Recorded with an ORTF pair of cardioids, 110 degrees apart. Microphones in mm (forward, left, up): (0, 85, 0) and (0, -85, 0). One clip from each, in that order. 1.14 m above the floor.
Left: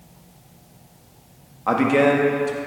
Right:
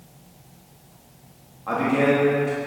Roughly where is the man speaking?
Ahead left.